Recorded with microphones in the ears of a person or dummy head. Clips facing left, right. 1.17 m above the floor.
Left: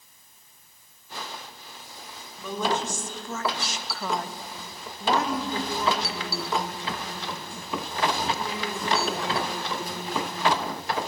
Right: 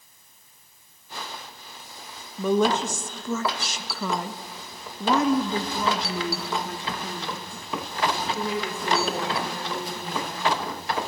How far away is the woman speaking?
About 1.4 m.